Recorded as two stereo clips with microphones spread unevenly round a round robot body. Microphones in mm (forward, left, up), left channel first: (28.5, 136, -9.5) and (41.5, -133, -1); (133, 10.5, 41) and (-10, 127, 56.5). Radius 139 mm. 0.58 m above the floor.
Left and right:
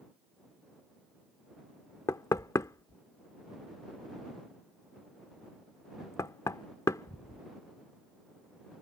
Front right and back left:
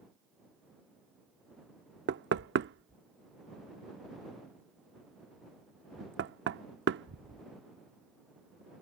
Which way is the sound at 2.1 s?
170° left.